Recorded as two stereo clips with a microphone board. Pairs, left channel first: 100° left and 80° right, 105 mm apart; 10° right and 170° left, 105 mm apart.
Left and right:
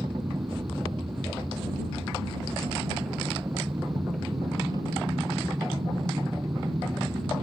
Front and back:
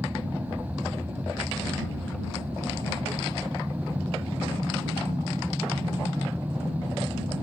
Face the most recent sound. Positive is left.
turn(degrees=-130)